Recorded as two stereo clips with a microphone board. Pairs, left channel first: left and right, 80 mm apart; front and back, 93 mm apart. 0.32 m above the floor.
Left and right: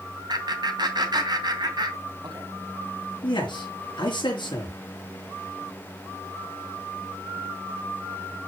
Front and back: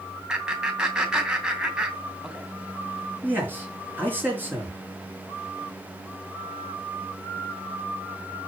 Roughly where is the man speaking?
Left.